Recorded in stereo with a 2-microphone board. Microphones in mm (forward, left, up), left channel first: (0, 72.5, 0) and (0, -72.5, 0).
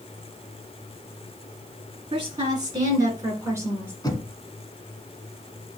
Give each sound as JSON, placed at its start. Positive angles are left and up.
{"t": 2.1, "sound": "a woman speaking", "side_deg": -35, "distance_m": 3.0}
{"t": 4.0, "sound": "knocking", "side_deg": 25, "distance_m": 1.4}